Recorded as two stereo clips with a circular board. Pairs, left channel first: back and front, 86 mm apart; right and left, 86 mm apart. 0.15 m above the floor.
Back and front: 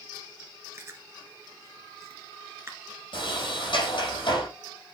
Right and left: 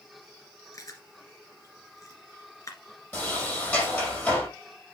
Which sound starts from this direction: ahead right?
Chewing, at 0.7 s.